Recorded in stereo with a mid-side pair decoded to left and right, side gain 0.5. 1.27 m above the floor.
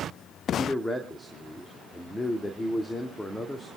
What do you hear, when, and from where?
0.6 s a man speaking: 10° left, 2.5 m